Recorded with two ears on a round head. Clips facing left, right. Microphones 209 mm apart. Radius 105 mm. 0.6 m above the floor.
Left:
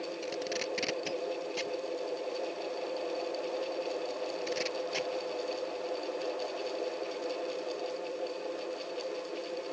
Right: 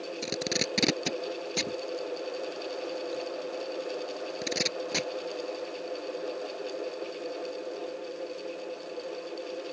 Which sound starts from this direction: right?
Tape being pulled, at 0.2 s.